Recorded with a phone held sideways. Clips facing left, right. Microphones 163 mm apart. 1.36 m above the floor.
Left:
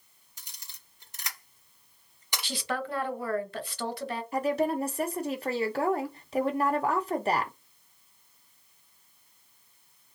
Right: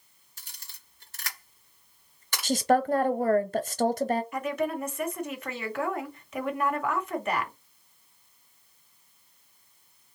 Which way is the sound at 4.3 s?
35° left (ahead or behind).